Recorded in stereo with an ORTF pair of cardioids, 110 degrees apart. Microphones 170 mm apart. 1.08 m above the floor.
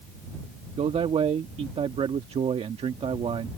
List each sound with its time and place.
0.8 s a man speaking: 35° right